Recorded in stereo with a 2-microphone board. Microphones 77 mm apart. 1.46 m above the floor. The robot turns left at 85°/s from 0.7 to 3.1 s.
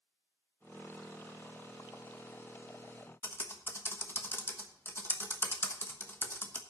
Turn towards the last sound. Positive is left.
turn(degrees=30)  # may be behind; listen again after turning